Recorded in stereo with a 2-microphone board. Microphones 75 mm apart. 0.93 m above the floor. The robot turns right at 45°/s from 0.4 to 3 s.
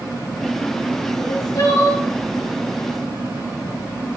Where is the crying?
105° left, 4.5 m; by 2.0 s 145° left, 4.5 m.